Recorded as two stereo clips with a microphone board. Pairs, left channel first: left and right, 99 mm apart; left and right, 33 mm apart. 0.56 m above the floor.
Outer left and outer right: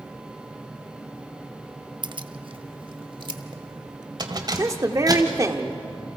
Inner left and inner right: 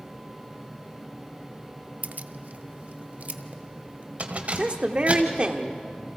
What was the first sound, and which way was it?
Keys jangling, 50° right (ahead or behind).